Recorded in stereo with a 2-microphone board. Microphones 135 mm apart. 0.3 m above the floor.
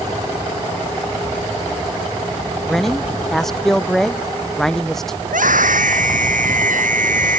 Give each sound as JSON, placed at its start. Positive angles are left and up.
{"t": 2.7, "sound": "a man speaking", "side_deg": 5}
{"t": 5.2, "sound": "a scream", "side_deg": -85}